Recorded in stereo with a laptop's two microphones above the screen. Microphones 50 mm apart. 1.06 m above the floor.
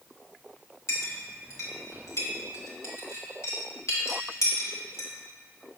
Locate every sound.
0.9 s a clink: 75° left (ahead or behind), 1.6 m